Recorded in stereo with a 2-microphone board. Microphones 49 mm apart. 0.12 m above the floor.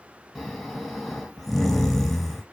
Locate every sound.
0.3 s snoring: 5° left (ahead or behind), 0.7 m